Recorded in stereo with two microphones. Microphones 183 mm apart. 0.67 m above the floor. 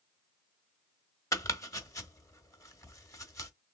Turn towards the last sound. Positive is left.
turn(degrees=15)  # may be behind; listen again after turning